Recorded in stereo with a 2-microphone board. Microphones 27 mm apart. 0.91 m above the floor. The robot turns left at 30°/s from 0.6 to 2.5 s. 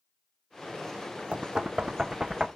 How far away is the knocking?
About 0.5 m.